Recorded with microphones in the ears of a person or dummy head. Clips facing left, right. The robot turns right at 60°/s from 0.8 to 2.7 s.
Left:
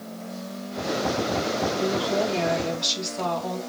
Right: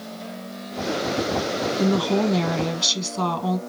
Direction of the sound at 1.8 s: 130° right.